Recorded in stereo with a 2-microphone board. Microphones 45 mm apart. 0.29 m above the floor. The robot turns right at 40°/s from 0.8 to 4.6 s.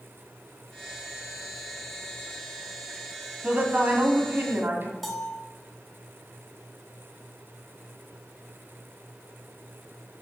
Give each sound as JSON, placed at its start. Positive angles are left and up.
{"t": 3.4, "sound": "a woman speaking", "azimuth_deg": -145, "distance_m": 2.0}
{"t": 5.0, "sound": "a bell", "side_deg": 5, "distance_m": 0.9}